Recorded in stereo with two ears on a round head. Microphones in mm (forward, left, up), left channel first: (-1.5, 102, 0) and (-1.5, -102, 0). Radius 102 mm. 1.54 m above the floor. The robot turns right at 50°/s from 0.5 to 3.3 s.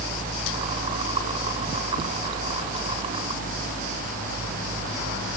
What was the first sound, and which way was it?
Only background noise.